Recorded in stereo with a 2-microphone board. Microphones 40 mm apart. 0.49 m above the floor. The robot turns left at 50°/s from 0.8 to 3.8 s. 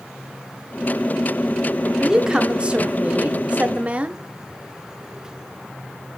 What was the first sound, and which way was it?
A woman speaking, 20° right.